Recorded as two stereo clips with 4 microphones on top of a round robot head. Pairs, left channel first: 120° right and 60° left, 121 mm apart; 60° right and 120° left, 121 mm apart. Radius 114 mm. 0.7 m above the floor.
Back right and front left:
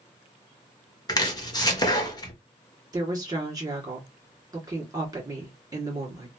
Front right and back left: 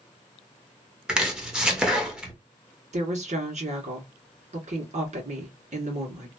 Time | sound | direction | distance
1.1 | chopping | 155° right | 1.2 m
2.9 | a woman speaking | 115° left | 1.9 m